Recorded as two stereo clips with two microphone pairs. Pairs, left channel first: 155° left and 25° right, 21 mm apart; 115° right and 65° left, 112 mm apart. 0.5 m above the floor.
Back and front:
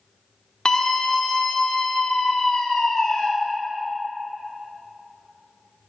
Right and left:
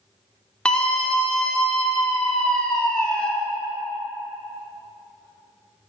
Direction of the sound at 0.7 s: 165° left.